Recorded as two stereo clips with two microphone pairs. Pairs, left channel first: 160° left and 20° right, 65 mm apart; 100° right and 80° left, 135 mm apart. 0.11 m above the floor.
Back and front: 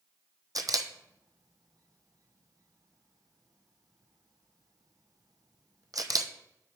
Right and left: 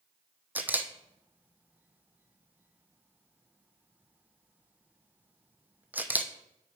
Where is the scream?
No scream in this recording.